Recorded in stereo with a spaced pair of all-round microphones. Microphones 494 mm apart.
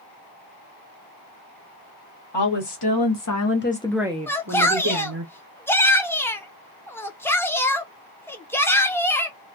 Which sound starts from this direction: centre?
A shout, at 4.3 s.